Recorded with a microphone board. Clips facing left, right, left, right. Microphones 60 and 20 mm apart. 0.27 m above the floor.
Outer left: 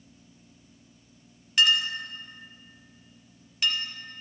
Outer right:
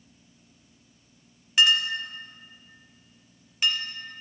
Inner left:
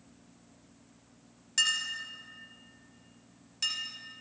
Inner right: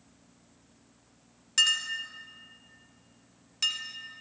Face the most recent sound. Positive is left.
turn(degrees=-10)  # may be behind; listen again after turning